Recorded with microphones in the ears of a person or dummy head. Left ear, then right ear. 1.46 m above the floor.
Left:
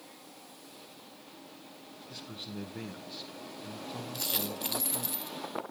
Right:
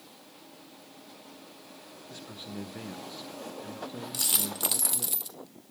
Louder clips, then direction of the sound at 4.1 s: Right 5 dB; 55° right (ahead or behind).